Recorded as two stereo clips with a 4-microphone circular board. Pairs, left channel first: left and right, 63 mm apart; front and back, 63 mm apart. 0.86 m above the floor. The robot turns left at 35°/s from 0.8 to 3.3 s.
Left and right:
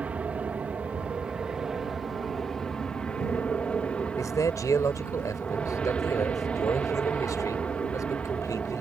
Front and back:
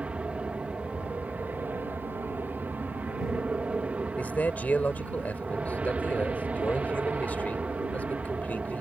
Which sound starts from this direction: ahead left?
A man speaking, at 4.2 s.